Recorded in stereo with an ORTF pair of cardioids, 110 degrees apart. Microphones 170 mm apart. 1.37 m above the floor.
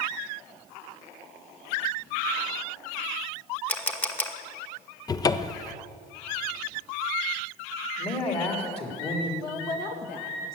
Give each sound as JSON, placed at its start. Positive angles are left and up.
{"t": 3.7, "sound": "a camera shutter", "azimuth_deg": 10, "distance_m": 1.2}
{"t": 5.1, "sound": "a cupboard door", "azimuth_deg": 20, "distance_m": 0.6}
{"t": 8.0, "sound": "a man speaking", "azimuth_deg": 35, "distance_m": 3.5}
{"t": 9.4, "sound": "a woman speaking", "azimuth_deg": 60, "distance_m": 2.0}